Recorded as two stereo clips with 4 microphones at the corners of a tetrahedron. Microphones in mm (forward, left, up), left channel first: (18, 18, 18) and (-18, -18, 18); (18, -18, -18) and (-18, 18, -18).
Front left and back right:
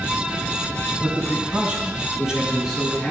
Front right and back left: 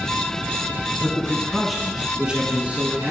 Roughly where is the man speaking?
Right.